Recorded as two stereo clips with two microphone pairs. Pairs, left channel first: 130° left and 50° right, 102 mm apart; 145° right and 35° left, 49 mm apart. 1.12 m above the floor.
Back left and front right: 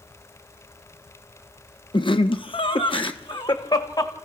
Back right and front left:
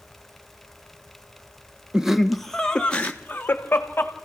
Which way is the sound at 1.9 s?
110° left.